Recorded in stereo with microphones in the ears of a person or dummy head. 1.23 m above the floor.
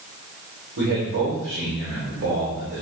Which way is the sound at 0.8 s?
60° right (ahead or behind).